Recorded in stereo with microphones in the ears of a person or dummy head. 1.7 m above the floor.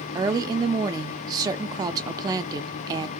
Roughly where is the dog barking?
I don't hear a dog barking.